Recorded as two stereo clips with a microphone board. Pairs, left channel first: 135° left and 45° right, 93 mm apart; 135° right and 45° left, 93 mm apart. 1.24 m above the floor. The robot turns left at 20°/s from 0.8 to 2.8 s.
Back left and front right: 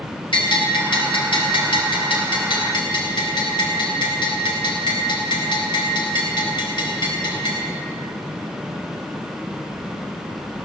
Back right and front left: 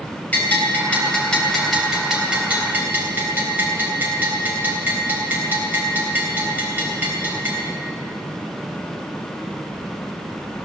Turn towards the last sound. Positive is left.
turn(degrees=115)